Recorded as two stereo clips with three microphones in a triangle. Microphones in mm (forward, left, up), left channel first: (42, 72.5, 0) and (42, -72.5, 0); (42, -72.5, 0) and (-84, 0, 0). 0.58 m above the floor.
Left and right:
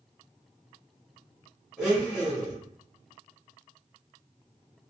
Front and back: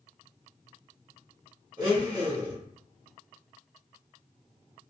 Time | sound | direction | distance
1.8 | a blender | 175° left | 1.3 m